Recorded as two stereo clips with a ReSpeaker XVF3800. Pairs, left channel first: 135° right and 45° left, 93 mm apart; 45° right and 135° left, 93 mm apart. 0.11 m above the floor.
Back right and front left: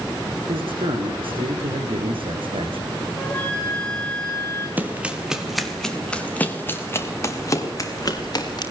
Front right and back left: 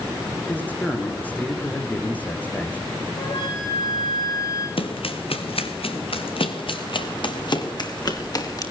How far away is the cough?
No cough in this recording.